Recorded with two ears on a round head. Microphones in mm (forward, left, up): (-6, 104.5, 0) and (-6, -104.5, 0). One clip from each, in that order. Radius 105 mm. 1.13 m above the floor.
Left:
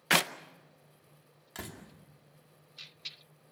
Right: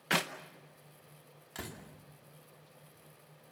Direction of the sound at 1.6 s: 5° left (ahead or behind).